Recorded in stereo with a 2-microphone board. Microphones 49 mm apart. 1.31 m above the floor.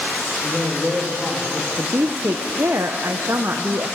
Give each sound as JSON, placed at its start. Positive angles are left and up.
{"t": 0.4, "sound": "a man speaking", "side_deg": -30, "distance_m": 1.8}
{"t": 1.8, "sound": "a woman speaking", "side_deg": -65, "distance_m": 0.9}